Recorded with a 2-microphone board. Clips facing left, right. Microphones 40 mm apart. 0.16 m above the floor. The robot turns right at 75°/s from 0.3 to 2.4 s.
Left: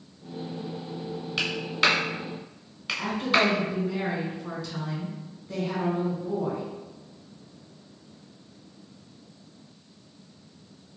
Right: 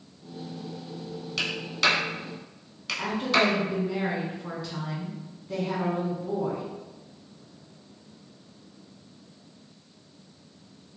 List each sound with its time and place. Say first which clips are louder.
1.4 s a clap: left 2 dB; 15° left (ahead or behind), 0.9 m
3.0 s a woman speaking: even; 10° right (ahead or behind), 1.2 m